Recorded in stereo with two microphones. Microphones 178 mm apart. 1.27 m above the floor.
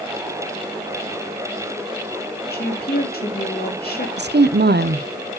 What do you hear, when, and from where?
2.5 s a woman speaking: 60° left (ahead or behind), 2.0 m
4.2 s a woman speaking: 70° right (ahead or behind), 0.5 m